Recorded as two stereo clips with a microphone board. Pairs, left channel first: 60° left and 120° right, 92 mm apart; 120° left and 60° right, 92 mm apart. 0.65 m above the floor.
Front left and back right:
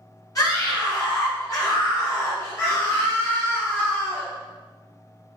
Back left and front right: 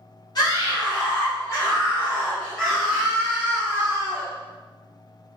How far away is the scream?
About 2 m.